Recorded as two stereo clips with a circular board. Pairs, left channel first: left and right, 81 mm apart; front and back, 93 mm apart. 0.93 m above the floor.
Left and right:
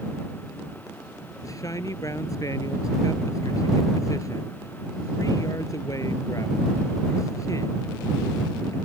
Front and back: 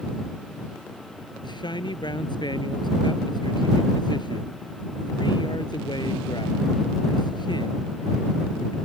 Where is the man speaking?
40° left.